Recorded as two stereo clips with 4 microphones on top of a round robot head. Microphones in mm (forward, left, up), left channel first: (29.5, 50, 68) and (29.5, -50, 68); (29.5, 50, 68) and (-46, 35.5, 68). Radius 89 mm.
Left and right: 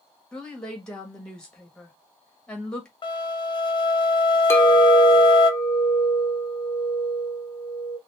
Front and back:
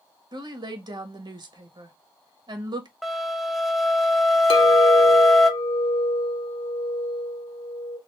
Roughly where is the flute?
Left.